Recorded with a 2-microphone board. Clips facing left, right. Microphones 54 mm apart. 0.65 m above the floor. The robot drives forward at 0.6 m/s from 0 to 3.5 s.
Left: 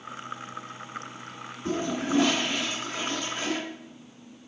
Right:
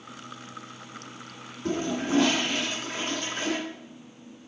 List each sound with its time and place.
1.6 s a toilet flushing: 65° right (ahead or behind), 2 m; by 3.6 s 50° right (ahead or behind), 2.5 m